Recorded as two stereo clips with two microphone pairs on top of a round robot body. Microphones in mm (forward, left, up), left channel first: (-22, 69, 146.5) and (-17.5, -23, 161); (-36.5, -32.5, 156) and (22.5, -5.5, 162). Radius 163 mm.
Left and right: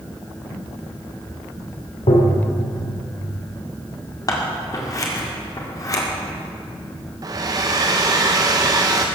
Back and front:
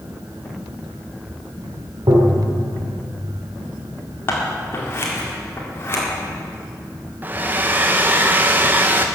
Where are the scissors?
150° left, 2 m.